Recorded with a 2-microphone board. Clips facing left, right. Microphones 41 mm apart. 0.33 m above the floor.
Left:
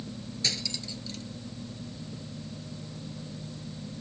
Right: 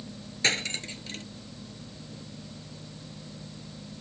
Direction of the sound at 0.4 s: 45° right (ahead or behind).